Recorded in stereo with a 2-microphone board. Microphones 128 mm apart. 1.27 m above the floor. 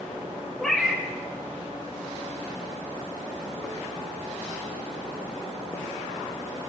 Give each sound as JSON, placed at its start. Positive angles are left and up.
{"t": 0.6, "sound": "a cat meowing", "side_deg": 5, "distance_m": 1.0}